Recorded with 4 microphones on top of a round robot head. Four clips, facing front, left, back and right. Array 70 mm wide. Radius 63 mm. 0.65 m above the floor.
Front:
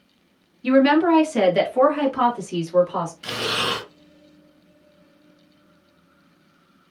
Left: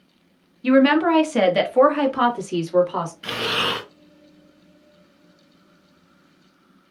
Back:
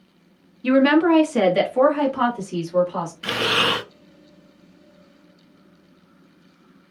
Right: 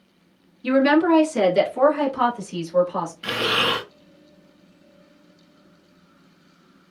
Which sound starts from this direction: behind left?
A woman speaking, at 0.6 s.